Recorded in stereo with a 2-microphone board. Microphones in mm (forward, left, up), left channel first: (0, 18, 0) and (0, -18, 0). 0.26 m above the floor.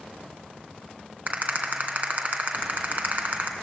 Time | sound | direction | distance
1.3 | a rattle | 50° right (ahead or behind) | 2.5 m